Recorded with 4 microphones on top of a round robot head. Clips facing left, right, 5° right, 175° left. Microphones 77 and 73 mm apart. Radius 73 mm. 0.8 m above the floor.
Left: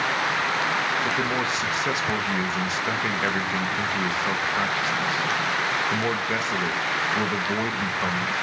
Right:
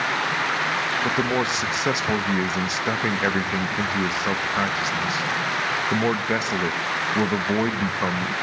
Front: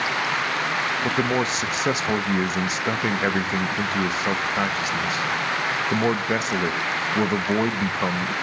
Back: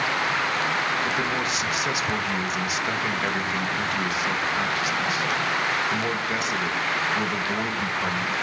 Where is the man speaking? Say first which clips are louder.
Right 2 dB, front 3 dB; 30° right, 1.1 m.